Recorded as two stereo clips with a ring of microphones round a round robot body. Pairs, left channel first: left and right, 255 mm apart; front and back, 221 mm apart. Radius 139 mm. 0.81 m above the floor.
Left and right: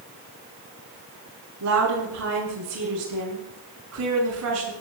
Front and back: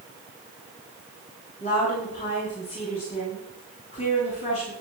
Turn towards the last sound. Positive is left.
turn(degrees=-65)